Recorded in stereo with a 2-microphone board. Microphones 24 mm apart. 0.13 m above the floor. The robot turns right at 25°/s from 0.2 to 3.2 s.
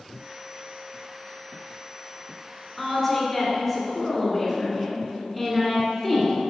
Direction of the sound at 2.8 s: 15° left (ahead or behind).